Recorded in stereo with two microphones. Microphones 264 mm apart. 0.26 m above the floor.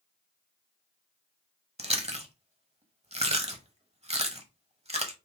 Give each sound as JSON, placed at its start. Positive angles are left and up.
{"t": 1.8, "sound": "chewing", "side_deg": -25, "distance_m": 0.9}